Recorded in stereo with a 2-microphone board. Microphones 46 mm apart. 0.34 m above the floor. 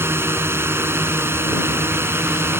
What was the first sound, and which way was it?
A drone, 70° right (ahead or behind).